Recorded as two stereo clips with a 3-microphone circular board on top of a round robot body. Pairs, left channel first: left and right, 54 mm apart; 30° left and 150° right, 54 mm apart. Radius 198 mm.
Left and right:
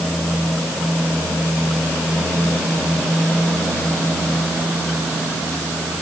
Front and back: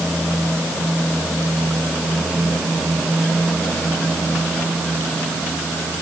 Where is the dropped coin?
I don't hear a dropped coin.